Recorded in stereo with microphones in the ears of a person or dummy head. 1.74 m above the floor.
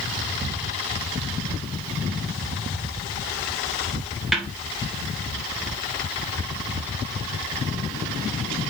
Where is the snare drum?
5° right (ahead or behind), 1.3 m.